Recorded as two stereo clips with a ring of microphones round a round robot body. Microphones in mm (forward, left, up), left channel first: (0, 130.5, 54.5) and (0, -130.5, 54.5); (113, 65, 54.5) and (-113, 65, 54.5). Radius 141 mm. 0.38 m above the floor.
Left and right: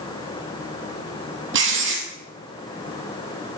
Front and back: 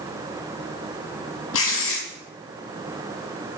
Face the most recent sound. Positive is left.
turn(degrees=-45)